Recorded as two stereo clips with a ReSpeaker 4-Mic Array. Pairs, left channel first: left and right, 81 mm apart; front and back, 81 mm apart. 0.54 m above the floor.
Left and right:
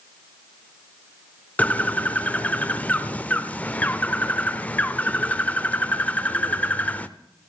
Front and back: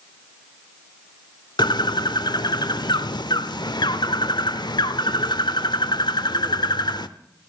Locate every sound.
1.6 s a bird: 20° left, 0.7 m